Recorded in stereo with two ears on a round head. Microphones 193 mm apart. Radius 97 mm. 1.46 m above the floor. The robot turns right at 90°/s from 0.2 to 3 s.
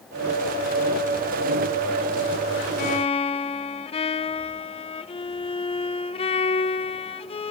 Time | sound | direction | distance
2.8 | a violin | 45° left (ahead or behind) | 0.7 m